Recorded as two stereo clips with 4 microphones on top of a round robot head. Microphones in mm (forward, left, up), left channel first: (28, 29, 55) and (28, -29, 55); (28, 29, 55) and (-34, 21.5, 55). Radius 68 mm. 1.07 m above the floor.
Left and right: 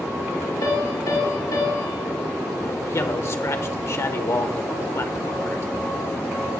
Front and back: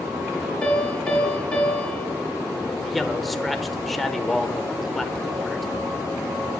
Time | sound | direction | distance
0.6 | a piano | 80° left | 3 m
2.8 | a man speaking | 95° left | 1.1 m